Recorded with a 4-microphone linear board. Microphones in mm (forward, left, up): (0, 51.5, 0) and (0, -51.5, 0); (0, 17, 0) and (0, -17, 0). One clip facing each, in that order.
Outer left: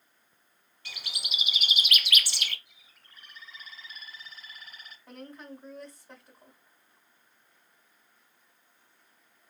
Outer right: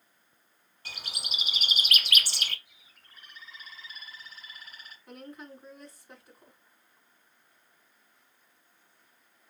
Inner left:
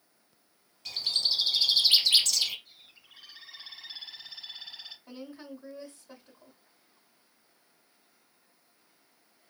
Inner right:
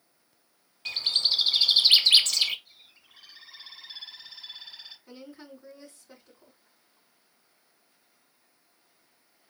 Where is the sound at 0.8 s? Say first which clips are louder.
Even, inner right 3 dB; 45° right (ahead or behind), 0.9 m.